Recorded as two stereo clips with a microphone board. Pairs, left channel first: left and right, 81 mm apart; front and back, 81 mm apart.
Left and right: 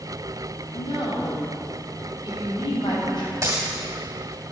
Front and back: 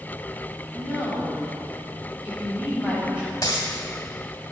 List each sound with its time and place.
0.7 s a woman speaking: 105° left, 2.5 m
3.4 s a dropped coin: 40° right, 1.7 m